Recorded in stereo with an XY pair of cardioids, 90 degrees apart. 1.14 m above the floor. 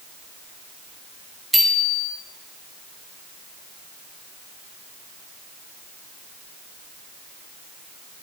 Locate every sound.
1.5 s a bicycle bell: straight ahead, 4 m